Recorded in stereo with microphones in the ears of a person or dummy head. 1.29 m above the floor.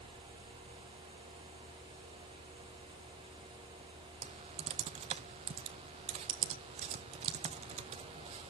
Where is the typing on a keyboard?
35° right (ahead or behind), 0.6 m.